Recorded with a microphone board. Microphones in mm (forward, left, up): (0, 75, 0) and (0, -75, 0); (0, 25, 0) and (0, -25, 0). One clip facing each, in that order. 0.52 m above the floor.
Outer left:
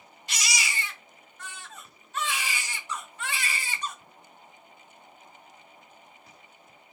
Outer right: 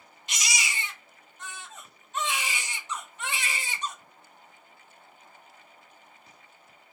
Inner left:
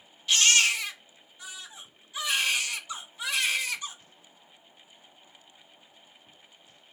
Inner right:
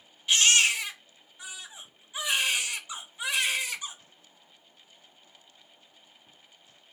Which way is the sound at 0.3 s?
20° right (ahead or behind).